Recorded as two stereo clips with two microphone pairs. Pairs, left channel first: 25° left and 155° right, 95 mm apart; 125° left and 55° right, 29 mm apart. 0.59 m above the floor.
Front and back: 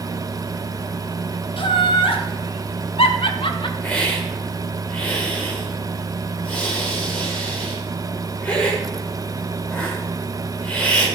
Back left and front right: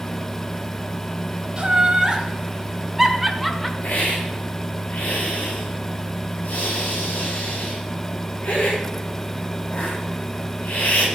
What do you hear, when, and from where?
1.6 s laughter: 5° left, 3 m; by 3.7 s 45° left, 1.7 m
3.8 s a hiss: 95° left, 8 m